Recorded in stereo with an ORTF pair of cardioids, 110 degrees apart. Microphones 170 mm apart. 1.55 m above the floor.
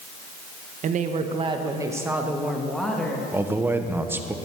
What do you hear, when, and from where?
0.8 s a woman speaking: 50° right, 1.4 m; by 3.2 s 10° left, 2 m
3.3 s a man speaking: 10° right, 1.2 m